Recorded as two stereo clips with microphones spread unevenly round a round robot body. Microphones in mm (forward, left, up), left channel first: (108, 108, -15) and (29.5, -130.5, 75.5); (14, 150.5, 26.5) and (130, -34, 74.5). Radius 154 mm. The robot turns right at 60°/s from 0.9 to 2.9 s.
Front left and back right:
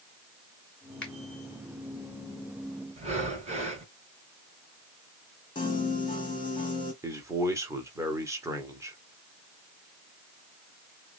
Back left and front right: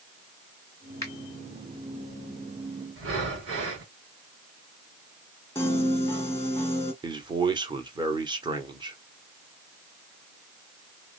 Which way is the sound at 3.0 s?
35° right.